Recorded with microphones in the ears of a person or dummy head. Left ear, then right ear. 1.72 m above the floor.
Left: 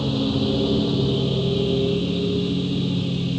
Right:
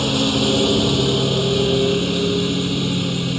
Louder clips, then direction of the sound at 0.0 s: Right 6 dB; 65° right (ahead or behind).